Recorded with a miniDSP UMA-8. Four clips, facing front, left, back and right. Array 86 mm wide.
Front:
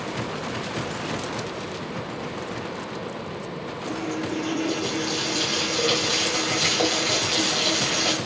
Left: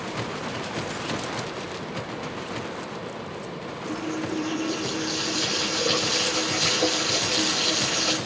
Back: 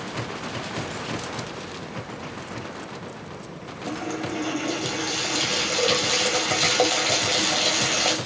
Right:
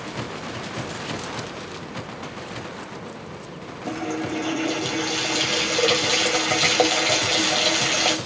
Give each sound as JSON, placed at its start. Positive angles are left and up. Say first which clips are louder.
{"t": 3.9, "sound": "a running tap", "louder": "right 3 dB, even", "azimuth_deg": -110, "distance_m": 8.5}